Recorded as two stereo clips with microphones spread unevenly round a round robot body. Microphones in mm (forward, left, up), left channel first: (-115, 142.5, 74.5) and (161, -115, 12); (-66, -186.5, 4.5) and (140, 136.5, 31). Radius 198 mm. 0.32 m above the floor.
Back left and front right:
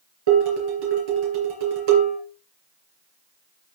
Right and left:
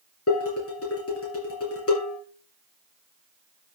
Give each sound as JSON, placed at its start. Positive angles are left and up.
{"t": 0.3, "sound": "dishes clattering", "azimuth_deg": -70, "distance_m": 4.0}